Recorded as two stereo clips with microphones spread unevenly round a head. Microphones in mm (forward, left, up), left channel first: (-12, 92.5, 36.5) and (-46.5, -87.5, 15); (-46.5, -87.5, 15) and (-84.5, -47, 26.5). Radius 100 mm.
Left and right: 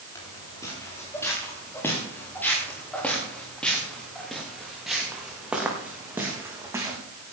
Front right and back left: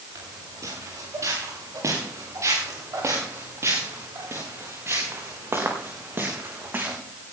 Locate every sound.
0.1 s footsteps: 150° left, 8.5 m; by 7.0 s 175° right, 5 m